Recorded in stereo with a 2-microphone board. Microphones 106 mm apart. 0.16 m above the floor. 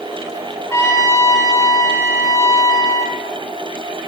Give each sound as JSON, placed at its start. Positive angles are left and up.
{"t": 0.7, "sound": "a trumpet", "side_deg": 30, "distance_m": 1.8}